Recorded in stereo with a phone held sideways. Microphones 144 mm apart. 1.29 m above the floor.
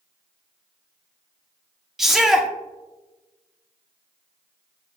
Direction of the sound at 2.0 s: Centre (ahead or behind).